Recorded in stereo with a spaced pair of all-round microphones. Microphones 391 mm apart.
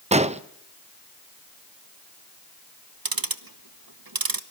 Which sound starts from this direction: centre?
An explosion, at 0.1 s.